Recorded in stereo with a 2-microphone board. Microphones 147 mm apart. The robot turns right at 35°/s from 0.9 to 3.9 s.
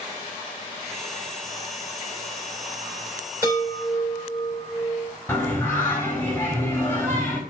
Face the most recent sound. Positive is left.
turn(degrees=15)  # may be behind; listen again after turning